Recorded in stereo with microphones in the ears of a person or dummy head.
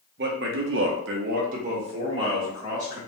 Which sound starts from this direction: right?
A man speaking, at 0.2 s.